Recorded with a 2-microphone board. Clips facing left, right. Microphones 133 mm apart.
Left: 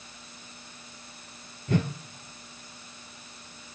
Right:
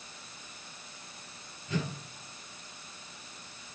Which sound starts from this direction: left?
A whoosh, at 1.7 s.